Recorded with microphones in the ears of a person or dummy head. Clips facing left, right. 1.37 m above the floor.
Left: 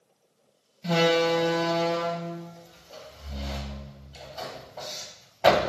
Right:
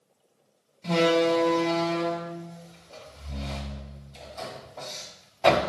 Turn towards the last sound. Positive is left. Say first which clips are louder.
# right 1 dB
turn(degrees=5)  # may be behind; listen again after turning